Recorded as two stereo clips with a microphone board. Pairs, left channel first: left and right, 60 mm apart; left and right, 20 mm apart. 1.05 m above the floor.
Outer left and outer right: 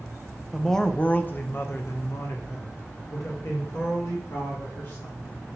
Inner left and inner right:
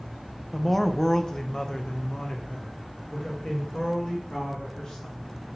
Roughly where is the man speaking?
Centre.